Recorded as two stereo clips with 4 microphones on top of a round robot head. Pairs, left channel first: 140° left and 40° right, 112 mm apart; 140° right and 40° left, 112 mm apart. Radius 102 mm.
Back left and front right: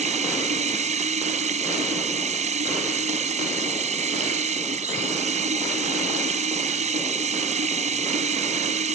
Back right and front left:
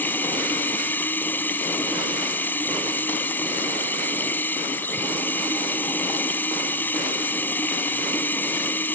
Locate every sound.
0.0 s running water: 65° right